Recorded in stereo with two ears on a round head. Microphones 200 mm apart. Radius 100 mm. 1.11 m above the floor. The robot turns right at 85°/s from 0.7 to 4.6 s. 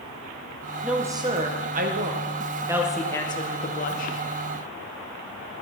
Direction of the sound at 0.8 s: Centre (ahead or behind).